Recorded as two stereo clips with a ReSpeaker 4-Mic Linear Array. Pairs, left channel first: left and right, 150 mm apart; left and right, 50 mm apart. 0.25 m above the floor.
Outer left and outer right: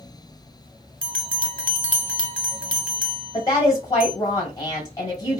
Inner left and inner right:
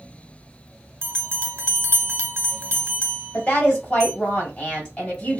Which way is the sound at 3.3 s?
25° left (ahead or behind).